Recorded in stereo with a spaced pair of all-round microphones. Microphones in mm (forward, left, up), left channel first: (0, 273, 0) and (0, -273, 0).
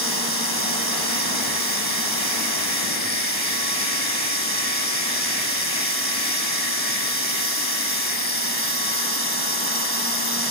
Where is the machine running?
25° right (ahead or behind), 4 m.